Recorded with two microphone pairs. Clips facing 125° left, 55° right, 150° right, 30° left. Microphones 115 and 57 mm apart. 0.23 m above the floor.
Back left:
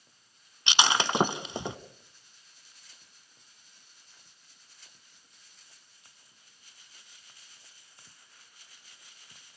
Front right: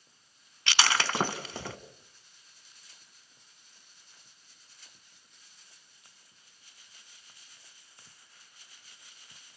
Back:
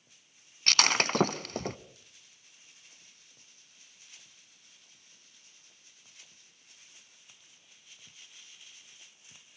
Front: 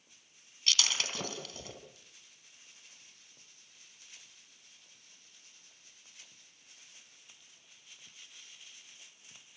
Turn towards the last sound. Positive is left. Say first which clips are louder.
# back left 2 dB, back 7 dB
turn(degrees=-165)